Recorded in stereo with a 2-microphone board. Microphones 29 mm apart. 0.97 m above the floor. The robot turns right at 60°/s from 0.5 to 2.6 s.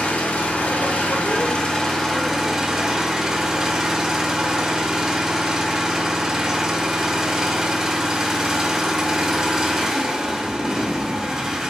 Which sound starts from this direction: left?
An engine running, at 0.0 s.